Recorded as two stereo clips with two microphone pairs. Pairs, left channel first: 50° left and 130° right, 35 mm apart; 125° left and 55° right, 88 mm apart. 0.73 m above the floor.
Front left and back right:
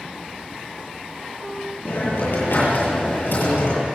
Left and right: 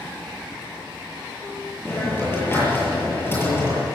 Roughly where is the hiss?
Ahead left.